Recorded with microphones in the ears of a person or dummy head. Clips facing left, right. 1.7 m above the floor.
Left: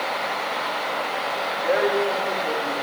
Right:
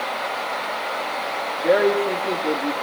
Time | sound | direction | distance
1.6 | a woman speaking | 50° right (ahead or behind) | 4.5 m